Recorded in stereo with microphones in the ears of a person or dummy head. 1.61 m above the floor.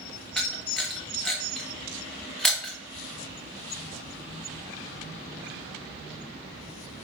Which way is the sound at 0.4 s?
5° left (ahead or behind).